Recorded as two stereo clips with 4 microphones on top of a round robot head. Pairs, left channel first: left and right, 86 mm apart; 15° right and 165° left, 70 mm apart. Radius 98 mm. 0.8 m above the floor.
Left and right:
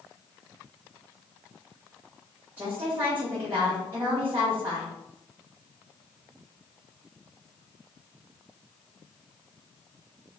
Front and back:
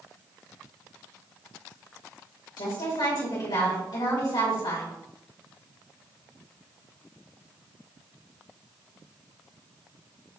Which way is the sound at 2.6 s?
15° right.